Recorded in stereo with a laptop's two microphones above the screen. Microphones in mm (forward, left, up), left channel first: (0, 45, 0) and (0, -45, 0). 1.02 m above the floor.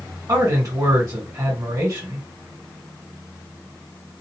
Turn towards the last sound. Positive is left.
turn(degrees=-40)  # may be behind; listen again after turning